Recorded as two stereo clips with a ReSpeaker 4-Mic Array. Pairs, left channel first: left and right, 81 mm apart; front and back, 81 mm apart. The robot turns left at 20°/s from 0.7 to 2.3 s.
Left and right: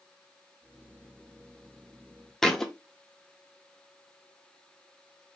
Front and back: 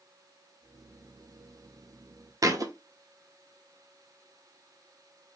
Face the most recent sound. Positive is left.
turn(degrees=170)